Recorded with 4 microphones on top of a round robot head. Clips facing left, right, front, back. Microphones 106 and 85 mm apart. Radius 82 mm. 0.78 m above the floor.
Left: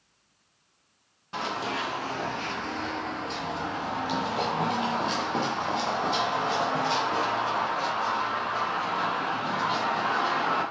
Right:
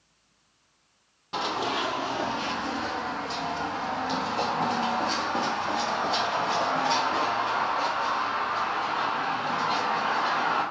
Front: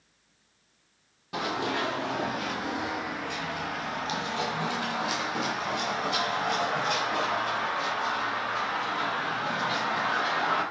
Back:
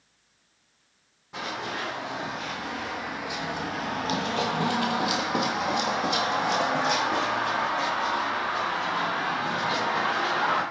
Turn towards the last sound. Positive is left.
turn(degrees=160)